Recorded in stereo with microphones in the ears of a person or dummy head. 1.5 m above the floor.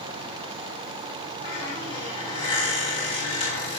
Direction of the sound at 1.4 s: 30° left (ahead or behind).